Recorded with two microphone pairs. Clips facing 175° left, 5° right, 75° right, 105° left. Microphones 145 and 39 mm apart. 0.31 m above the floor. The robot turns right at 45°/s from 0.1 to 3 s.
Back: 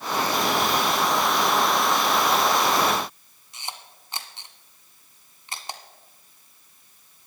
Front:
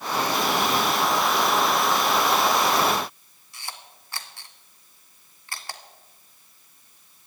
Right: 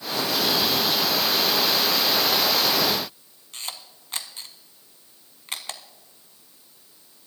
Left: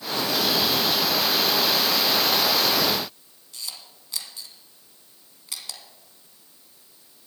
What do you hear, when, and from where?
3.5 s a camera shutter: 120° right, 1.1 m